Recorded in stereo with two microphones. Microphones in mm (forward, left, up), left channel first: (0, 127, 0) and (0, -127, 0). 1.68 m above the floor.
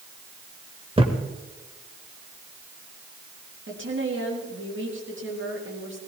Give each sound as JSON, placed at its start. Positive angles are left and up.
{"t": 1.0, "sound": "a thud", "side_deg": -20, "distance_m": 1.5}
{"t": 3.7, "sound": "a woman speaking", "side_deg": -50, "distance_m": 4.0}